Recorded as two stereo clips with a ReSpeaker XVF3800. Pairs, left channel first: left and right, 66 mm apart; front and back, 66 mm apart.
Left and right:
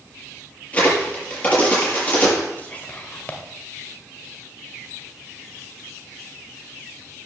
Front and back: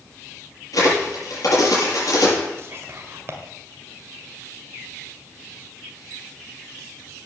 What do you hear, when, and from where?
0.7 s a crack: 25° left, 6.5 m
2.6 s whispering: 150° left, 1.6 m